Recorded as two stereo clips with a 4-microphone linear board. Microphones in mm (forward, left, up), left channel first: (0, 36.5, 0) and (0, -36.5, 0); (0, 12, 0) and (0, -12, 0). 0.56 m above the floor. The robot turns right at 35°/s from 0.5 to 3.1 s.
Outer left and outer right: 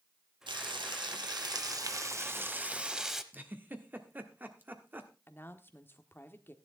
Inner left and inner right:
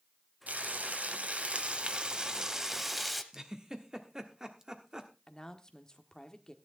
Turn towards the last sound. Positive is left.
turn(degrees=25)  # may be behind; listen again after turning